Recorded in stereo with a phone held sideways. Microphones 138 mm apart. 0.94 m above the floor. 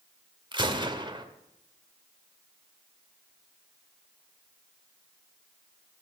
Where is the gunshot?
35° right (ahead or behind), 1.7 m.